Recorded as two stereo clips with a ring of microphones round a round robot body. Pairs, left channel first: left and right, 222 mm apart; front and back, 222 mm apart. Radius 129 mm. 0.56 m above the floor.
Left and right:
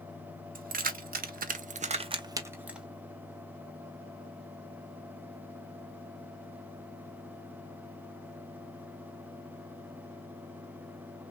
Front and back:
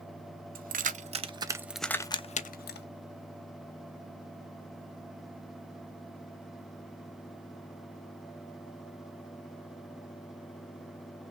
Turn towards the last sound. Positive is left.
turn(degrees=-5)